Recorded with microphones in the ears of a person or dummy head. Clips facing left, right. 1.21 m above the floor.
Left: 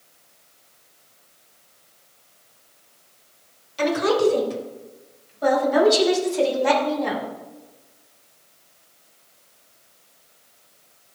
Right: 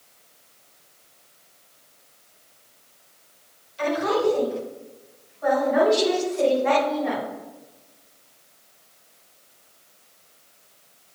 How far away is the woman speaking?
About 4 m.